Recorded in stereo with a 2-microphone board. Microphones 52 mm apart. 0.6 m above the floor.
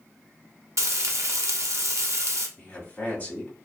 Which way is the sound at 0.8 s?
70° right (ahead or behind).